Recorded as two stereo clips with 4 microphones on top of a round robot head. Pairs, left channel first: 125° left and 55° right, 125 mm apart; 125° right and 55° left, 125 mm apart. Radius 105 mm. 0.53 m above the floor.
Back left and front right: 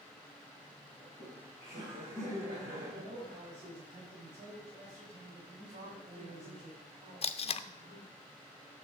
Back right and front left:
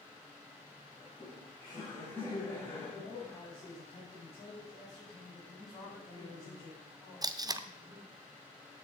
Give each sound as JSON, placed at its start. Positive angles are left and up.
{"t": 1.0, "sound": "laughter", "azimuth_deg": -70, "distance_m": 3.0}
{"t": 2.9, "sound": "a man speaking", "azimuth_deg": -85, "distance_m": 4.0}
{"t": 5.7, "sound": "a man speaking", "azimuth_deg": -70, "distance_m": 5.5}
{"t": 7.2, "sound": "tape being pulled", "azimuth_deg": 105, "distance_m": 0.5}